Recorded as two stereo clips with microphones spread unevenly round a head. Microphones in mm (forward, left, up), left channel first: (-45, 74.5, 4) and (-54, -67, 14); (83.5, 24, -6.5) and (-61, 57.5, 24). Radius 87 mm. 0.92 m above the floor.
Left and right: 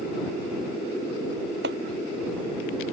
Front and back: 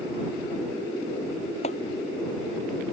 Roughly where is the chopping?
Right.